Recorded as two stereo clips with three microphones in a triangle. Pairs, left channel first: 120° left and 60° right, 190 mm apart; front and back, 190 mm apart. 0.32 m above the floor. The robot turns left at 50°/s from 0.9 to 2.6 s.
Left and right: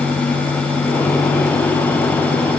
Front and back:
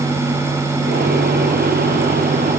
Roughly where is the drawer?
I don't hear a drawer.